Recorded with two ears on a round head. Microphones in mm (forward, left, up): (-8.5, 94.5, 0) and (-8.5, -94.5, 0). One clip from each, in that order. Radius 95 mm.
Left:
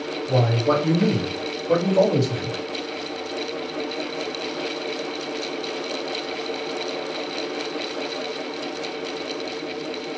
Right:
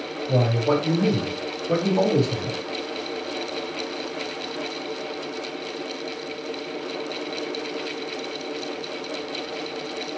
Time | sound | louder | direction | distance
0.3 | a man speaking | left 1 dB | 10° right (ahead or behind) | 2.0 m